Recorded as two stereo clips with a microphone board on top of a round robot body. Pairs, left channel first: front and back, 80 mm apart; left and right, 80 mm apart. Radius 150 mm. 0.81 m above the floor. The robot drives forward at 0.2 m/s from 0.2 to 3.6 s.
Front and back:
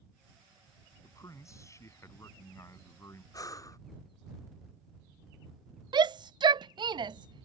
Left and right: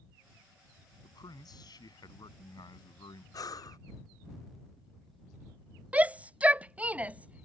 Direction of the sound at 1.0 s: 50° left.